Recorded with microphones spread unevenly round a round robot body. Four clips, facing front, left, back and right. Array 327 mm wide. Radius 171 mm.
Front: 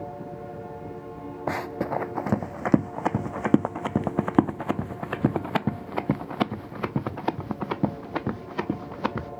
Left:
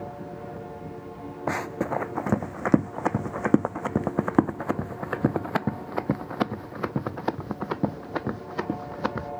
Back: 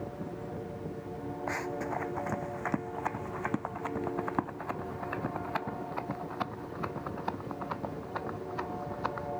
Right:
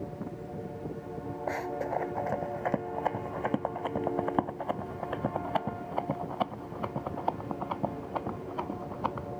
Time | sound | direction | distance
1.5 | running footsteps | 40° left | ?